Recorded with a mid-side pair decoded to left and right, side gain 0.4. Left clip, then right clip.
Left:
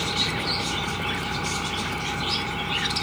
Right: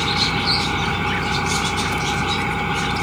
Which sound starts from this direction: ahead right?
An engine running, at 0.0 s.